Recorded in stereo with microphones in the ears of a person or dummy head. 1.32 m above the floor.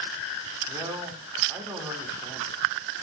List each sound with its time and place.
0.7 s a man speaking: 15° right (ahead or behind), 1.6 m